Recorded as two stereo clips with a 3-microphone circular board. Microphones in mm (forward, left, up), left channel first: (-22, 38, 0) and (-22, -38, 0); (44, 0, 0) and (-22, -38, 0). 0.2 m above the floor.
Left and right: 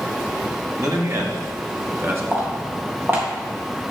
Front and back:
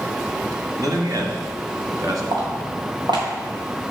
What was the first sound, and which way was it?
A man speaking, 120° right.